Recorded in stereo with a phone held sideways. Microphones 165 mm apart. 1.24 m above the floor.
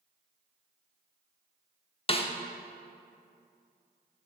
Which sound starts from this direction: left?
A snare drum, at 2.1 s.